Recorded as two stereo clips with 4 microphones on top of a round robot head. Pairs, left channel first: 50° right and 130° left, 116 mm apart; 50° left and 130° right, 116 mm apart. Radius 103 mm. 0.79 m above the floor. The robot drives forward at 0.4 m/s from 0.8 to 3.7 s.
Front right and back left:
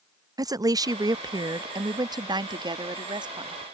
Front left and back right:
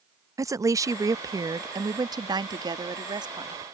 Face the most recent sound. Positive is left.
turn(degrees=180)